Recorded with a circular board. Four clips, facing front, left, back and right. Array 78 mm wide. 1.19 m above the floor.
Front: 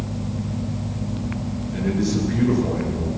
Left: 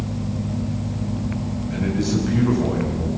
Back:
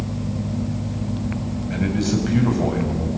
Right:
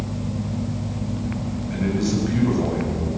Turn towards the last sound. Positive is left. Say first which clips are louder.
# even, even
turn(degrees=-175)